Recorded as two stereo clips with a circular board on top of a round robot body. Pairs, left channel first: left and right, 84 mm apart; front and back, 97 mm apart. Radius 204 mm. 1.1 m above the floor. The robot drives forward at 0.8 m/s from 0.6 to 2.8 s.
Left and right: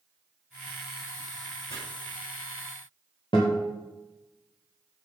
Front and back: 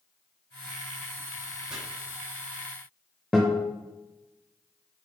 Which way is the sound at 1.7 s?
100° left.